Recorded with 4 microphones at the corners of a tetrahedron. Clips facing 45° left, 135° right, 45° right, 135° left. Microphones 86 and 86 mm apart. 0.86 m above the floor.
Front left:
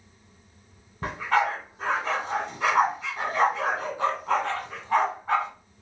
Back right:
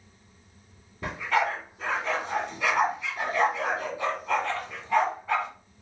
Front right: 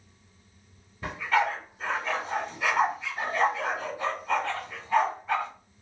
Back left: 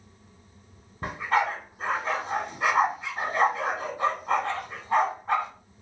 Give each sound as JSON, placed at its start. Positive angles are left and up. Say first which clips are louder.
{"t": 1.0, "sound": "a dog barking", "louder": "front left 2 dB, back left 1 dB", "azimuth_deg": 95, "distance_m": 1.7}